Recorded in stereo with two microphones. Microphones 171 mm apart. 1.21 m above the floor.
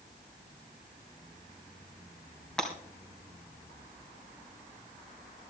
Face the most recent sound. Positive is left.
turn(degrees=5)  # may be behind; listen again after turning